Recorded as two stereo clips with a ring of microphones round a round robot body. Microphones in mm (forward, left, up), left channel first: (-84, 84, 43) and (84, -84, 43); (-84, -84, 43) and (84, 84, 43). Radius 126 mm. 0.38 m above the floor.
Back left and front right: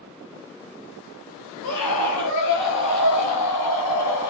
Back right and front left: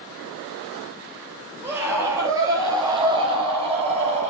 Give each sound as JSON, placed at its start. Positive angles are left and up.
{"t": 1.6, "sound": "a scream", "azimuth_deg": 125, "distance_m": 6.5}